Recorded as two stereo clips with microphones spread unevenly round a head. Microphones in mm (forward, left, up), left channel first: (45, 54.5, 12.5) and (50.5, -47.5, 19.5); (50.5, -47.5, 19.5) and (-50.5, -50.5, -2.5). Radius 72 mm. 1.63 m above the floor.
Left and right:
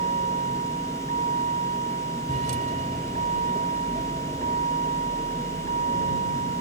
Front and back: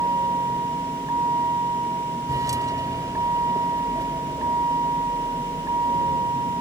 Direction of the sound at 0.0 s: 120° right.